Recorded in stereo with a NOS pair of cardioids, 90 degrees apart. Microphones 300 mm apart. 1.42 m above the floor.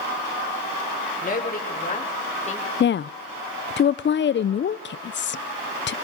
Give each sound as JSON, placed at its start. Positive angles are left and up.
{"t": 1.2, "sound": "a woman speaking", "azimuth_deg": 30, "distance_m": 6.5}
{"t": 2.8, "sound": "a woman speaking", "azimuth_deg": 40, "distance_m": 0.7}